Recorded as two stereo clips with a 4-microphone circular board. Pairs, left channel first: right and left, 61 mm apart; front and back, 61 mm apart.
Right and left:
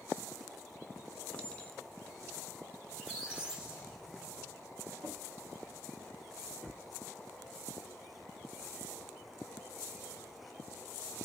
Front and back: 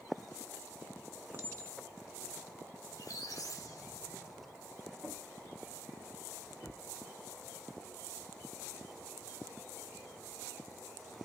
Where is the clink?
155° right, 0.7 m.